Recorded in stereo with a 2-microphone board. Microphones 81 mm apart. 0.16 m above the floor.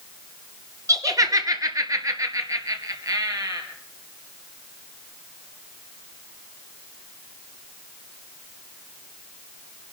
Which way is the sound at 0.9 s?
40° right (ahead or behind).